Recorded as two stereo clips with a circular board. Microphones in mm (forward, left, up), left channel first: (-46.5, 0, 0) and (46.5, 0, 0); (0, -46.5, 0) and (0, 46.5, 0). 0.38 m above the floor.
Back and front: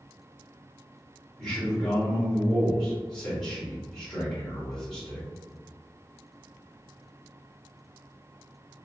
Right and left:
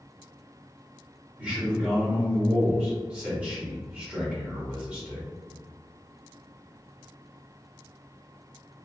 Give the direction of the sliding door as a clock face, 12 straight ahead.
No sliding door in this recording.